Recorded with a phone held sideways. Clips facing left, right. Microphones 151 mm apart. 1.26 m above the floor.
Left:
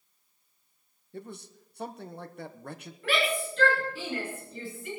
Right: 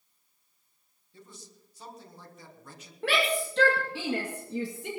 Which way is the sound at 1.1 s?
60° left (ahead or behind).